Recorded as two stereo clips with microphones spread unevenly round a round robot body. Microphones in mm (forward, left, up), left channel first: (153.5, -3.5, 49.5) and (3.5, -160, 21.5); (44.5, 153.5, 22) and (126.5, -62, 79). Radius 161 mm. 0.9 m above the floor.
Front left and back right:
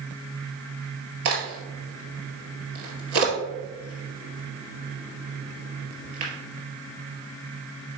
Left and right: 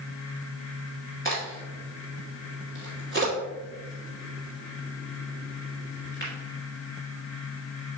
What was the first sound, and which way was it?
A crack, 170° right.